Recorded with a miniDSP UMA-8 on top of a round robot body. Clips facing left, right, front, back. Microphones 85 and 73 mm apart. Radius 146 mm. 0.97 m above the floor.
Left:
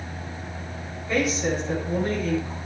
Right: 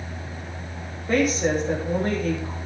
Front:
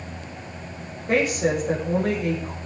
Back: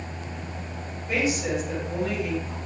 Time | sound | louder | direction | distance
1.1 | a woman speaking | right 3 dB, front 4 dB | 40° right | 6 m